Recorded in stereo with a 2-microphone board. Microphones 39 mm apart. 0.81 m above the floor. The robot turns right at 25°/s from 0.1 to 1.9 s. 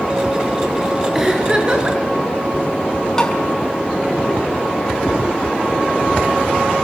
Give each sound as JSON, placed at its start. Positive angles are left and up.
{"t": 1.1, "sound": "a giggle", "side_deg": -10, "distance_m": 6.0}
{"t": 3.2, "sound": "tapping", "side_deg": 15, "distance_m": 4.5}